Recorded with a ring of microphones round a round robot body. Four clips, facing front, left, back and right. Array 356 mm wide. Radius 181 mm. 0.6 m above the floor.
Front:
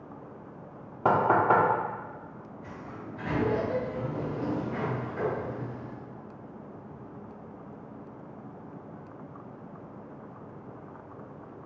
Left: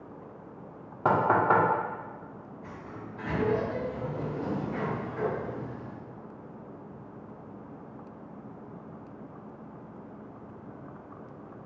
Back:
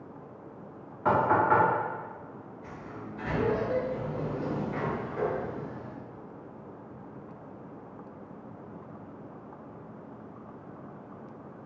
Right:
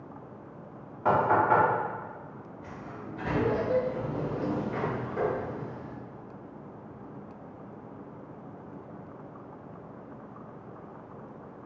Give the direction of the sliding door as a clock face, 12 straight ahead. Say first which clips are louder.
Right 1 dB, front 1 dB; 3 o'clock.